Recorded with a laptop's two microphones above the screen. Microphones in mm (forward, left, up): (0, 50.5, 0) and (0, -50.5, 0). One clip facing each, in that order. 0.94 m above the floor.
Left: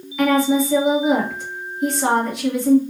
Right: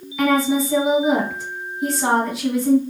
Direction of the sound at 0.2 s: Centre (ahead or behind).